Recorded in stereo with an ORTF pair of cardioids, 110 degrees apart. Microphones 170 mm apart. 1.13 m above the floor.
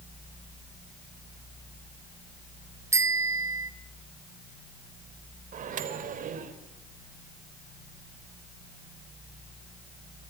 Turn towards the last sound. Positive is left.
turn(degrees=-50)